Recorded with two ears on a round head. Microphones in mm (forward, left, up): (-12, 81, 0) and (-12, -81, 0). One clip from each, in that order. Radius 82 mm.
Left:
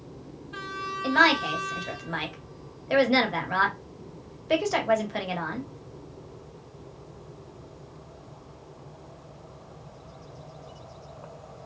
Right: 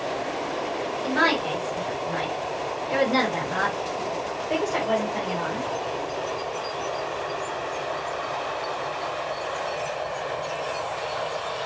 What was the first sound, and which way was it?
A woman speaking, 45° left (ahead or behind).